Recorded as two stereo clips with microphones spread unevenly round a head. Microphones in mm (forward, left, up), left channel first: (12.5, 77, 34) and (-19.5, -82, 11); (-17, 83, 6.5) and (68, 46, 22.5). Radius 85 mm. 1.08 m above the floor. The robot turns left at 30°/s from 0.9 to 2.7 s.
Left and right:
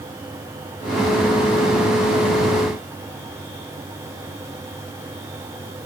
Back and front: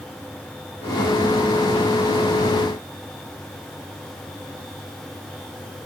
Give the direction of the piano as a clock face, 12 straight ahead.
I don't hear a piano.